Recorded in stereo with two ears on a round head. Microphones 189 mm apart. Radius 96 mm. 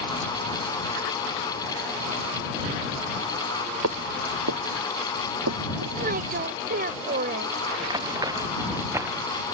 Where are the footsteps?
65° right (ahead or behind); by 6.0 s 70° right (ahead or behind).